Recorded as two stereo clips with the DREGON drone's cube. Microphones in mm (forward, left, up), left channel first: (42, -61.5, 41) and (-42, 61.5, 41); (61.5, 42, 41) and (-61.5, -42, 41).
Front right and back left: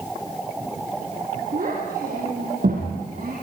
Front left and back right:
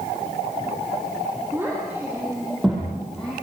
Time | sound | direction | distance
1.5 | a child speaking | 140° left | 6.5 m